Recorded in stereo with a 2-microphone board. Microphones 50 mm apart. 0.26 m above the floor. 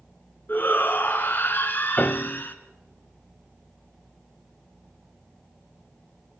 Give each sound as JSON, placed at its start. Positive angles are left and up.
{"t": 0.5, "sound": "a shout", "side_deg": 40, "distance_m": 3.0}
{"t": 2.0, "sound": "a piano", "side_deg": 35, "distance_m": 0.6}